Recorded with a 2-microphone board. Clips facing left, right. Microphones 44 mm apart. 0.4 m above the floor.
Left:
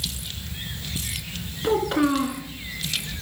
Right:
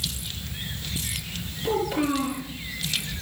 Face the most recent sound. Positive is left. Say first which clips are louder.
# left 4 dB
turn(degrees=70)  # may be behind; listen again after turning